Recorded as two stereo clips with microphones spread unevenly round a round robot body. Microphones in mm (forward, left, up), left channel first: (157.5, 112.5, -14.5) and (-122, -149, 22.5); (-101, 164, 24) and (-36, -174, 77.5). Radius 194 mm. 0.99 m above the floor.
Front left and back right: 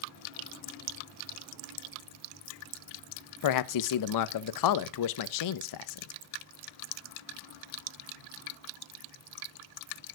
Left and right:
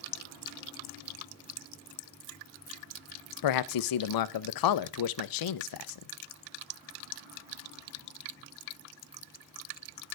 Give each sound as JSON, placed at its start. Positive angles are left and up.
{"t": 3.4, "sound": "a man speaking", "azimuth_deg": 80, "distance_m": 0.6}